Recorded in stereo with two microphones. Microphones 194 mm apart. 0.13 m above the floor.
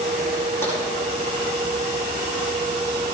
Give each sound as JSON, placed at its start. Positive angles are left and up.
{"t": 0.6, "sound": "tapping", "side_deg": 15, "distance_m": 9.5}